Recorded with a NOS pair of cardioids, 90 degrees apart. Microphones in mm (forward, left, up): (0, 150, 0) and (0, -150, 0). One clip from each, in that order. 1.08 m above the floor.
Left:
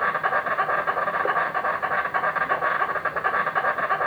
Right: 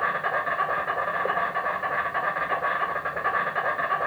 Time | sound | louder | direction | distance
0.0 | an insect | left 2 dB | 40° left | 4 m